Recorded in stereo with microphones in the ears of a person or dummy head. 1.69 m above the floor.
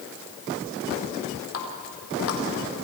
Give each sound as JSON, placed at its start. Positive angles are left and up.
{"t": 1.5, "sound": "a running tap", "side_deg": 70, "distance_m": 3.5}